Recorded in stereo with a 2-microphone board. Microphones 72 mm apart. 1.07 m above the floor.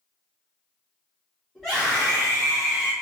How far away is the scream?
About 1.6 m.